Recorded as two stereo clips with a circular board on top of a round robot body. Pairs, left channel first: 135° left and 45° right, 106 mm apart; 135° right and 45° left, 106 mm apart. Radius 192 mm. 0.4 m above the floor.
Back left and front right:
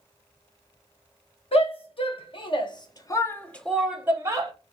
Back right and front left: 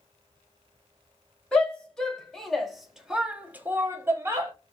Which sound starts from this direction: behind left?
A shout, at 1.5 s.